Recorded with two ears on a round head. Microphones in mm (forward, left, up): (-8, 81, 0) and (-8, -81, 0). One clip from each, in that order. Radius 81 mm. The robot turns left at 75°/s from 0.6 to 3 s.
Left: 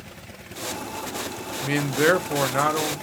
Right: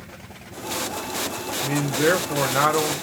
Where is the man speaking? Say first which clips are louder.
Left 1 dB; 70° left, 0.7 m; by 3.0 s 30° right, 0.7 m.